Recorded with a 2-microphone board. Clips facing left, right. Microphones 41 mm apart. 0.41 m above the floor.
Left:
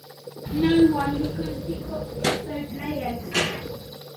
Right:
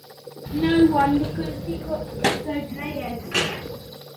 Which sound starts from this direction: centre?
A child speaking, at 0.5 s.